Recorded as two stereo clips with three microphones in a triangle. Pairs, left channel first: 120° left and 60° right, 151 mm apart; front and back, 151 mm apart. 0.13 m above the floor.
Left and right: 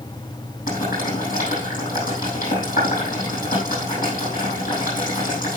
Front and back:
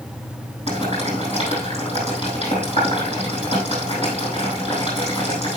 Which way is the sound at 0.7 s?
140° left.